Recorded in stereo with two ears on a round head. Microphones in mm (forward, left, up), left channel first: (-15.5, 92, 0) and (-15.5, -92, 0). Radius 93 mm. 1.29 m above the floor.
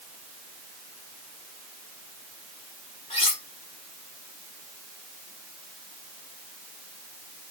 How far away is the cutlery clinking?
About 2.5 m.